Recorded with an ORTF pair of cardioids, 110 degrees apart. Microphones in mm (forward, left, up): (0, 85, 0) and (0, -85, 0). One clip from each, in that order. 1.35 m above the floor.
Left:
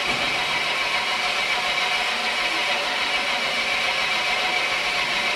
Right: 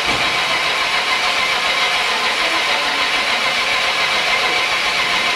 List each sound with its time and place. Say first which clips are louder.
0.0 s an engine running: right 6 dB; 35° right, 0.7 m